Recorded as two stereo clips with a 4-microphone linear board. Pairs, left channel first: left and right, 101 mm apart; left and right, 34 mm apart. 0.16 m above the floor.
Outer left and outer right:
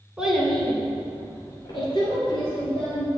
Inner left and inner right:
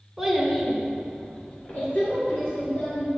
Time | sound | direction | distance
0.2 | a child speaking | 10° right (ahead or behind) | 1.3 m